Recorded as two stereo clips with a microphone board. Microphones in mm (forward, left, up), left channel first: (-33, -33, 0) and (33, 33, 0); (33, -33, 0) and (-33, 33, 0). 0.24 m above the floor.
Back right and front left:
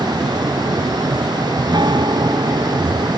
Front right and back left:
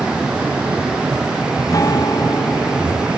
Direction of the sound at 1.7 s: 5° left.